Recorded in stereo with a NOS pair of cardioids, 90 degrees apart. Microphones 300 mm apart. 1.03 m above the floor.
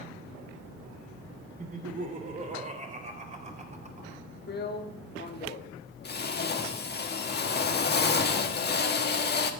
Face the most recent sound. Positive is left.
turn(degrees=35)